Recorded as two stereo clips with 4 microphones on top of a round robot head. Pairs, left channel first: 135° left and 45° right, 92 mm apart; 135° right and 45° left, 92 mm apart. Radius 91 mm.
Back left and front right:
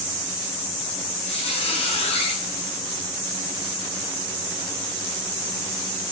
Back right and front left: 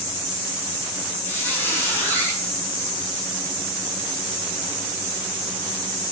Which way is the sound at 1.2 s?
155° left.